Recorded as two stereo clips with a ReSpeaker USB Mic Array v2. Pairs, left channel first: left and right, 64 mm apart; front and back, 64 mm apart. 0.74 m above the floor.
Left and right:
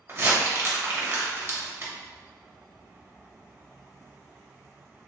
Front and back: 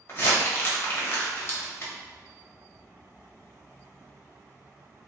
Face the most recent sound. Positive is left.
turn(degrees=-45)